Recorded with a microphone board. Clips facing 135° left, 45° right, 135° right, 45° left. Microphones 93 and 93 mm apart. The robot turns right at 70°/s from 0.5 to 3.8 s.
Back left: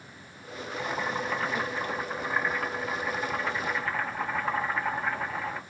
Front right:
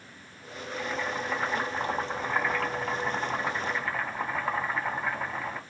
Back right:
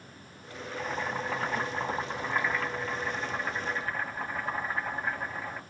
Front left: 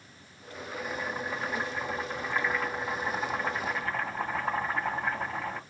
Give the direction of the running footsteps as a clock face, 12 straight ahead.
I don't hear running footsteps.